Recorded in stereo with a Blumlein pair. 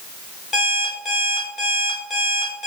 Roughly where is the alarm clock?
Ahead.